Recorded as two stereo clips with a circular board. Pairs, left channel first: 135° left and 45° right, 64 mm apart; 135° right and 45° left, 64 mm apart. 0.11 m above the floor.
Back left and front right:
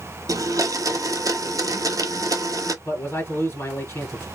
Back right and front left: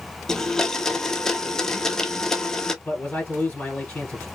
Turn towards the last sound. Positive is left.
turn(degrees=165)